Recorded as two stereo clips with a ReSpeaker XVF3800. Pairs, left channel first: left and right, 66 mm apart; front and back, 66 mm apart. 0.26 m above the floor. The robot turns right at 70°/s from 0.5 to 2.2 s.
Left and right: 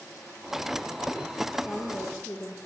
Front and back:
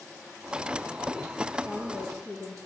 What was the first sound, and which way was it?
A woman speaking, 15° right.